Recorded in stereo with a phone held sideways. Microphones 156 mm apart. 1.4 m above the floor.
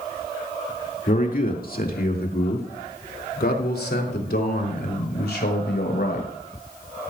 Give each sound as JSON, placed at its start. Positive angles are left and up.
{"t": 1.1, "sound": "a man speaking", "side_deg": 55, "distance_m": 2.5}